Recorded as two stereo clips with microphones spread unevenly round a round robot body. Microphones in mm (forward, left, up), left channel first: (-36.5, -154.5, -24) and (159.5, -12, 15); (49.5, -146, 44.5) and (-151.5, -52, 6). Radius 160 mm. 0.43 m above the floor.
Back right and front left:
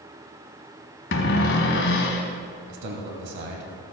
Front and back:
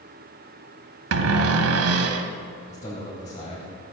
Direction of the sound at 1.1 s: 160° left.